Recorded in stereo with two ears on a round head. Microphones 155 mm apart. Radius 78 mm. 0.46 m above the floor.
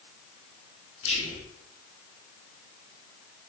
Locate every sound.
1.0 s whispering: 35° left (ahead or behind), 1.2 m